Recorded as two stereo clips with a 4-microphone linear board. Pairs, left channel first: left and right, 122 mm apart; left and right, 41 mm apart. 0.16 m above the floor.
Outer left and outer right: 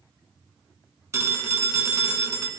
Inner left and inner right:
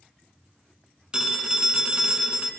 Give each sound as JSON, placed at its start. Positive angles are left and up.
{"t": 1.1, "sound": "a phone ringing", "side_deg": -25, "distance_m": 0.7}